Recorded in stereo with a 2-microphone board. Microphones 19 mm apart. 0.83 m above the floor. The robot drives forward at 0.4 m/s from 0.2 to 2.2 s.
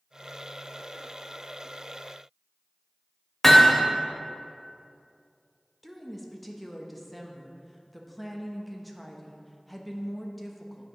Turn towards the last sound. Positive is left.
turn(degrees=5)  # may be behind; listen again after turning